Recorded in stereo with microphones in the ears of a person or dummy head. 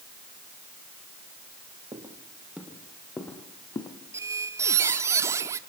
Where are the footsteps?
15° right (ahead or behind), 1.8 m; by 4.0 s 20° left (ahead or behind), 2 m.